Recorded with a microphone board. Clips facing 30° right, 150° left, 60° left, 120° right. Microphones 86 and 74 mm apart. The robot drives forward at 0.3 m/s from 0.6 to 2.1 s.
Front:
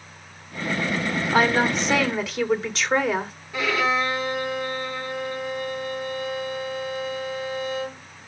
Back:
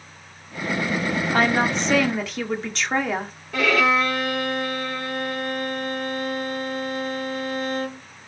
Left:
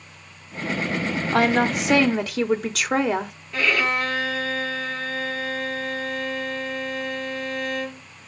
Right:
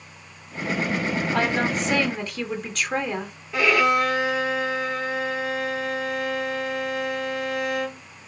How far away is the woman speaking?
About 3 m.